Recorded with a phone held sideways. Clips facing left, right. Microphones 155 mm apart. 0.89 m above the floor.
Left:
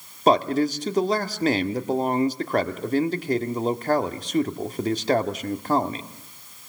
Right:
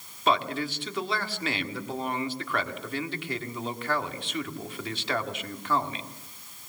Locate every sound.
0.3 s a man speaking: 40° left (ahead or behind), 1.9 m